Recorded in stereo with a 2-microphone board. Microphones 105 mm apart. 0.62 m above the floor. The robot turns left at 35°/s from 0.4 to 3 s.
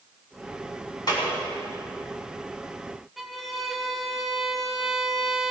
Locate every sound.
1.1 s a clap: 45° left (ahead or behind), 3.5 m; by 1.3 s 50° left (ahead or behind), 3.5 m
3.2 s a violin: centre (ahead or behind), 1.0 m